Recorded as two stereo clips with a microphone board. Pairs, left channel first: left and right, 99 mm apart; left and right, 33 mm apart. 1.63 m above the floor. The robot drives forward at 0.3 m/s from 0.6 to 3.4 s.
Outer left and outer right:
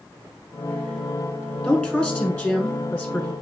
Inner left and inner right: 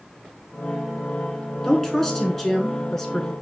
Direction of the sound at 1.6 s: 10° left (ahead or behind).